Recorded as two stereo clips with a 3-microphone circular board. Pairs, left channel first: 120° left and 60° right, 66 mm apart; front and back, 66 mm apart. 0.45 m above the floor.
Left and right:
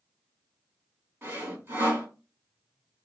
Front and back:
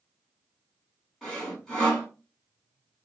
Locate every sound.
1.2 s sawing: 80° right, 1.7 m